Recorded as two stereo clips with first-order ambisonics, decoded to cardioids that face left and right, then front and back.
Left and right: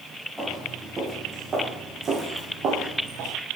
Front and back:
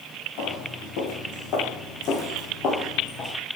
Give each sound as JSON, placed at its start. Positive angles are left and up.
{"t": 0.4, "sound": "footsteps", "azimuth_deg": -10, "distance_m": 2.5}